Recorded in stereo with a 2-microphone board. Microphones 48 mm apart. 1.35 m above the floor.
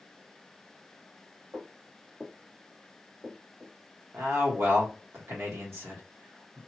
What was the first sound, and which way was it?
Footsteps, 45° right (ahead or behind).